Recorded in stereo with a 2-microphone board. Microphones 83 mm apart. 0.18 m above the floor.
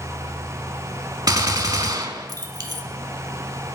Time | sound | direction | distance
1.3 | a gunshot | 45° right (ahead or behind) | 0.5 m